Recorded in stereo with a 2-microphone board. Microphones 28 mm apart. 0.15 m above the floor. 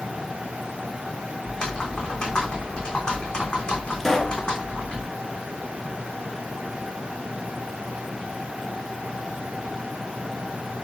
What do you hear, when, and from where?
1.4 s typing on a keyboard: 35° left (ahead or behind), 3 m
4.0 s a pop: 10° left (ahead or behind), 2 m